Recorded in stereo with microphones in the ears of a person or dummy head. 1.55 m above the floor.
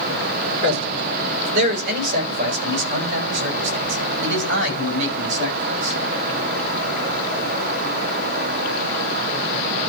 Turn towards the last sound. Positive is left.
turn(degrees=-70)  # may be behind; listen again after turning